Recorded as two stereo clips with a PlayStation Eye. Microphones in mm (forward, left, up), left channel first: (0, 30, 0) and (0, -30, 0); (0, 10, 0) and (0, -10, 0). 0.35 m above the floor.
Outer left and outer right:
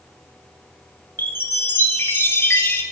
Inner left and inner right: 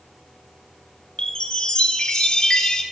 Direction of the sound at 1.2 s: 40° left (ahead or behind).